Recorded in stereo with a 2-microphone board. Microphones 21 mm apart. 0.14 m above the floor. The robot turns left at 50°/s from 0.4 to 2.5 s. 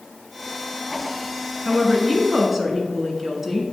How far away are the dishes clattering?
I don't hear dishes clattering.